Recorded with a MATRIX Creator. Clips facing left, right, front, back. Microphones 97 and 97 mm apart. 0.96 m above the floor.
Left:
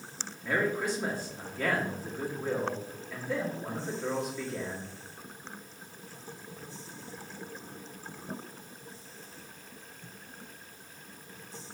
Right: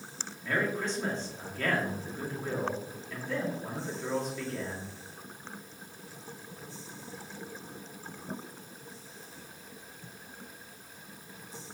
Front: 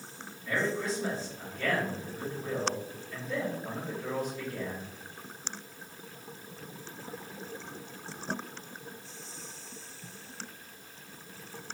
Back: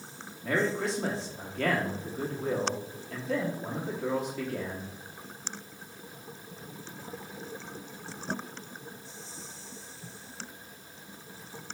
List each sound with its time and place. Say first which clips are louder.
0.4 s a man speaking: left 2 dB, back 3 dB; 170° left, 1.7 m